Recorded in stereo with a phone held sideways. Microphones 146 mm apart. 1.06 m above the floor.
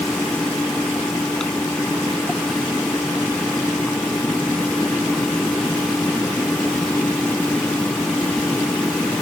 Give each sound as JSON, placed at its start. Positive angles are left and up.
{"t": 0.0, "sound": "a fan", "side_deg": 5}